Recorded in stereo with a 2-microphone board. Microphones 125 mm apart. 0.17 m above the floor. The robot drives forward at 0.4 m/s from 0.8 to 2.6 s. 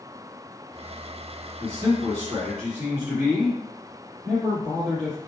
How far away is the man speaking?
About 1.4 m.